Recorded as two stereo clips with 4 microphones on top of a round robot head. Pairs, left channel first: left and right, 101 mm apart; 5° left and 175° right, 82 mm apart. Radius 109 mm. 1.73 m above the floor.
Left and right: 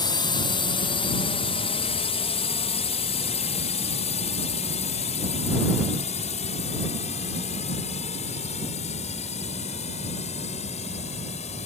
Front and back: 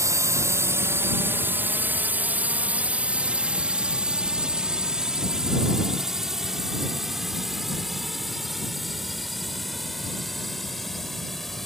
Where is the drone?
135° left; by 11.7 s 90° left.